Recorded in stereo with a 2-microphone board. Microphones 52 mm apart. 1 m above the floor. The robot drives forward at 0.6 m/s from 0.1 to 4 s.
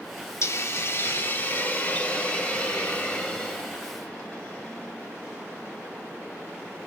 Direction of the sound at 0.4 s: 55° left (ahead or behind).